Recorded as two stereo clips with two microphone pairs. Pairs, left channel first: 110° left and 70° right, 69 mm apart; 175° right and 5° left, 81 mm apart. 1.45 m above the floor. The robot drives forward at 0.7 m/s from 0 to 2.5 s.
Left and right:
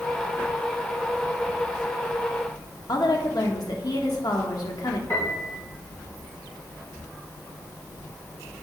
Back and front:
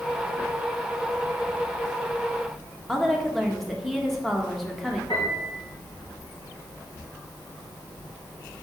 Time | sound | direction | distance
2.9 | a woman speaking | 95° left | 1.4 m
5.1 | a piano | 155° left | 4 m